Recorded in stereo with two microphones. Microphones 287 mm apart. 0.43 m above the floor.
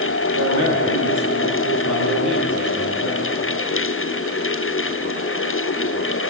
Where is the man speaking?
70° right (ahead or behind), 6.5 m.